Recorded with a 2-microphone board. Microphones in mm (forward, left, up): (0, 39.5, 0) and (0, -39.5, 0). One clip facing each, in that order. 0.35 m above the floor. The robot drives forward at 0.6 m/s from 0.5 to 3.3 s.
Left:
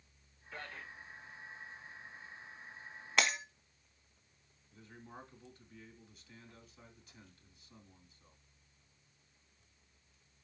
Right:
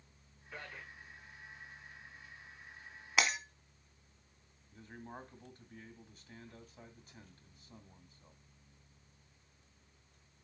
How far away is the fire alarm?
I don't hear a fire alarm.